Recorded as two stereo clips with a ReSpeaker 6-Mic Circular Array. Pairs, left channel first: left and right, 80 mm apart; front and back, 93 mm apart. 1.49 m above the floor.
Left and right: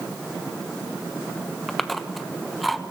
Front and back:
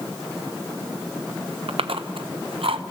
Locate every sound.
1.7 s chewing: straight behind, 1.0 m